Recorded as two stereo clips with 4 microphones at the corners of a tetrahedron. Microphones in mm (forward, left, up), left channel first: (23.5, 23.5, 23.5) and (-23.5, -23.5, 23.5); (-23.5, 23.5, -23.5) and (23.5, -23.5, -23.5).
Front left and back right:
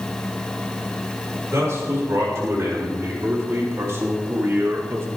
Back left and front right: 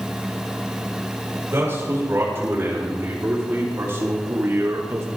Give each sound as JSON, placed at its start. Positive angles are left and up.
{"t": 1.5, "sound": "a man speaking", "azimuth_deg": -95, "distance_m": 6.5}